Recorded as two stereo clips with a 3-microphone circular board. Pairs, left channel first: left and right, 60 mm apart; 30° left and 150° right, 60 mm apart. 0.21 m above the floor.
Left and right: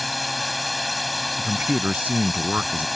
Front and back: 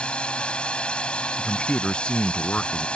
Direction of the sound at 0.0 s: Straight ahead.